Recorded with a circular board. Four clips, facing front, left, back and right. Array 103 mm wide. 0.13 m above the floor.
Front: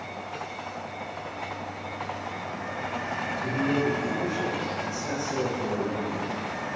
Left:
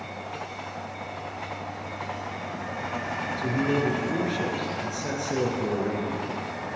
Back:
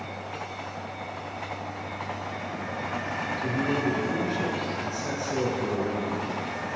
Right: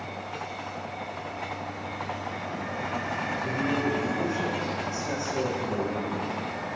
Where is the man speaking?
100° left, 2 m.